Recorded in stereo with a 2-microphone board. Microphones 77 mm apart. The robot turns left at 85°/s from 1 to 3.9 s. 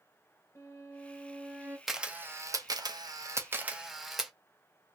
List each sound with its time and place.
0.6 s a violin: 35° left, 1.0 m; by 1.8 s 30° right, 1.0 m
1.9 s a camera shutter: centre (ahead or behind), 0.5 m; by 4.3 s 5° right (ahead or behind), 0.5 m